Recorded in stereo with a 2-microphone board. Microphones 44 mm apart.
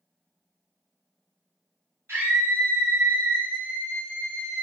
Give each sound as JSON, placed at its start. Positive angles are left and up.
{"t": 2.1, "sound": "a scream", "side_deg": -70, "distance_m": 1.9}